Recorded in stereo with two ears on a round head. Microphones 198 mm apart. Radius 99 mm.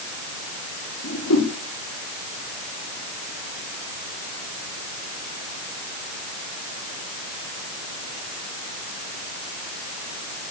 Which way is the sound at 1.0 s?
75° left (ahead or behind).